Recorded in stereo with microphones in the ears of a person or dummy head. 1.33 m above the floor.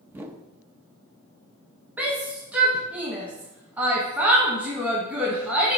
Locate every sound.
0.1 s a whoosh: 20° right (ahead or behind), 0.7 m
2.0 s a shout: 5° right (ahead or behind), 1.1 m